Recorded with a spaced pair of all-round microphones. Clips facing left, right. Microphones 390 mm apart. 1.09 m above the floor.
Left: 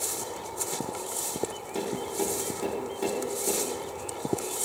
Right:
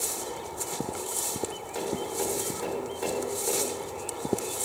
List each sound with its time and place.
1.8 s tapping: 50° left (ahead or behind), 9.5 m